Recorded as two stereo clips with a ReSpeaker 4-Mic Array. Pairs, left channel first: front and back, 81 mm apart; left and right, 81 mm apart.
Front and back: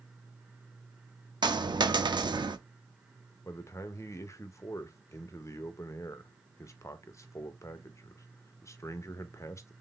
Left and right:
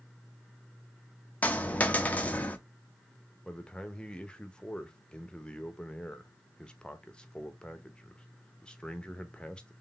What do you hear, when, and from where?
1.4 s a dropped coin: 160° left, 0.5 m
3.5 s a man speaking: 20° left, 0.6 m